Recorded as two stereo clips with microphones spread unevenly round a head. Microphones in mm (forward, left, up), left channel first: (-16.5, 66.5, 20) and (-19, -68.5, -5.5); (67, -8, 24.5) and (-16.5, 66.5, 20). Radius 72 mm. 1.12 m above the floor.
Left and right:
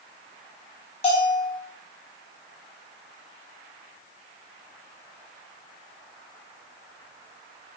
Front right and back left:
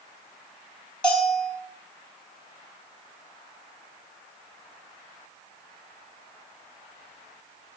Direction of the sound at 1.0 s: 40° left.